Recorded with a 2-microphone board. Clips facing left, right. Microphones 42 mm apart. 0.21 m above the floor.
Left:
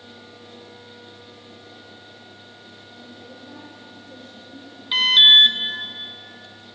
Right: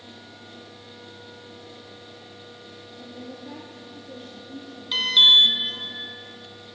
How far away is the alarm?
About 2.5 m.